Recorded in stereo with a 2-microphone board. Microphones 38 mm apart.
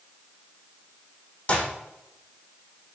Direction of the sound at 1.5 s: 35° left (ahead or behind).